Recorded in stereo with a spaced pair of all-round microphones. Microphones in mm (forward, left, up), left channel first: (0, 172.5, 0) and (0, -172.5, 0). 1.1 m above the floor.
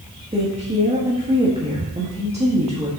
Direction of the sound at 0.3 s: 20° right (ahead or behind).